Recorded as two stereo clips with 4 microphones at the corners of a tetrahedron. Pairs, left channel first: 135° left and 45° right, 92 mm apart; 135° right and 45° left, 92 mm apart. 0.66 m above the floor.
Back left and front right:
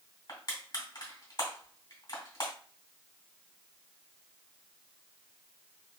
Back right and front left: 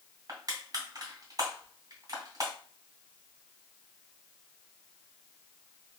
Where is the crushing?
95° left, 2 m.